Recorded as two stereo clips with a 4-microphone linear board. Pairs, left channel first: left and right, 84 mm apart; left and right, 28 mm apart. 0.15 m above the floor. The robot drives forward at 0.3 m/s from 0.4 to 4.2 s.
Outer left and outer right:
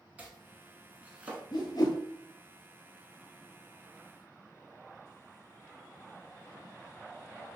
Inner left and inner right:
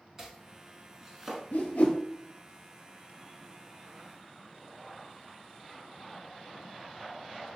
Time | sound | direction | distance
0.2 | chopping | 20° right (ahead or behind) | 0.7 m
1.5 | a whoosh | 60° left (ahead or behind) | 0.9 m